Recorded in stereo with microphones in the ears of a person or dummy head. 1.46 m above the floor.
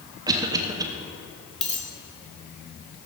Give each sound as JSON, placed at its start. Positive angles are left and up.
{"t": 0.3, "sound": "a cough", "side_deg": -15, "distance_m": 1.1}
{"t": 1.6, "sound": "a dropped coin", "side_deg": 5, "distance_m": 1.9}